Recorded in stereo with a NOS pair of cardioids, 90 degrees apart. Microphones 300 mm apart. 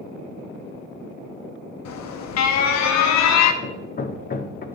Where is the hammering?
30° left, 1.0 m.